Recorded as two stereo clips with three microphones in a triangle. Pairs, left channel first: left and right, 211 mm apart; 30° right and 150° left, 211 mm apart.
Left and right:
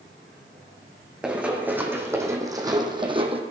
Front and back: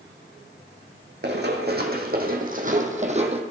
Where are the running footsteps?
175° right, 2.5 m; by 3.4 s 150° right, 1.7 m.